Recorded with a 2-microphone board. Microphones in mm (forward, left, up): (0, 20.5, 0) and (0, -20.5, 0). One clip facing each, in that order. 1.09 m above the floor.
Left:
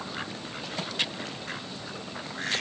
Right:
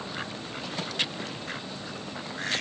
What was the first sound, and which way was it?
Only background noise.